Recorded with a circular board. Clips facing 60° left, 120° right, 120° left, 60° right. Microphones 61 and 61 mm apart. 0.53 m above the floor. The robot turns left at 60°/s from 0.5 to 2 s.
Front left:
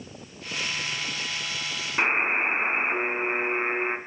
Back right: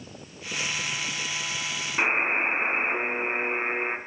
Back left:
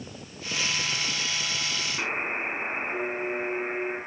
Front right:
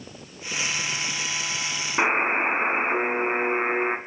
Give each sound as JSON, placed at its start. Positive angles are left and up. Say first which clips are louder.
{"t": 2.0, "sound": "a buzzer", "louder": "front left 1 dB, front right 10 dB", "azimuth_deg": -20, "distance_m": 4.0}